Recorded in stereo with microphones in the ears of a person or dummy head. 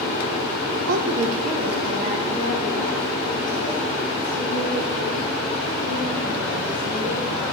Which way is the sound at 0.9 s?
50° right (ahead or behind).